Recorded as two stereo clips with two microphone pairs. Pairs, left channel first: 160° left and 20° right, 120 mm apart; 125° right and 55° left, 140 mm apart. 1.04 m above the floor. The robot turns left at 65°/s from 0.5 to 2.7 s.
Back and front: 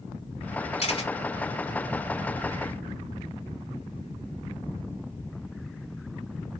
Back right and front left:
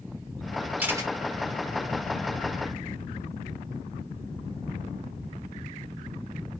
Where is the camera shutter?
135° left, 4 m; by 1.1 s 115° left, 4 m.